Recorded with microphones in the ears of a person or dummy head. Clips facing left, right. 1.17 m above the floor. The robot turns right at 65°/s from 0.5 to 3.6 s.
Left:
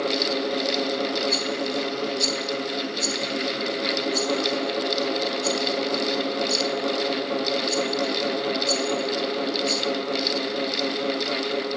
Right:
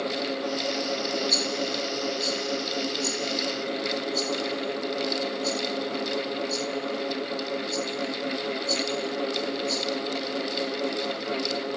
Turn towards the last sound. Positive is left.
turn(degrees=70)  # may be behind; listen again after turning